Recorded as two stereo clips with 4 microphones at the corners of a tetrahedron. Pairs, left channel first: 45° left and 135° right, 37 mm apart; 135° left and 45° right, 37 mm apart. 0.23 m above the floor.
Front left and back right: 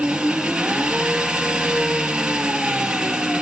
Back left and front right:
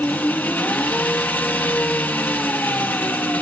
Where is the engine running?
150° left, 2.5 m.